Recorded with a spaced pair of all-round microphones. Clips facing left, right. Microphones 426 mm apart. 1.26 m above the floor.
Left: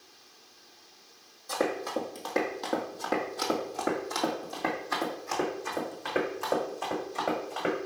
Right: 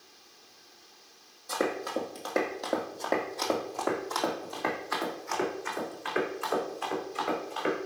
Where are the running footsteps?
Centre (ahead or behind), 1.8 m; by 7.8 s 65° left (ahead or behind), 3.5 m.